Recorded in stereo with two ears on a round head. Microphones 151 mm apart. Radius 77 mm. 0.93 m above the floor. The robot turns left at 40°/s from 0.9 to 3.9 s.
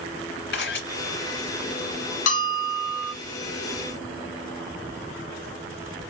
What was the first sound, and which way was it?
A camera shutter, 70° left (ahead or behind).